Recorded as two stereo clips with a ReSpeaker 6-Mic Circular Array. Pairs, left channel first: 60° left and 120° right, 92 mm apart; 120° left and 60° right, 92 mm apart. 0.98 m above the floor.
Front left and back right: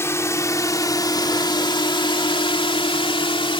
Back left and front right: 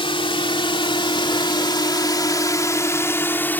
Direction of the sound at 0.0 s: 120° left.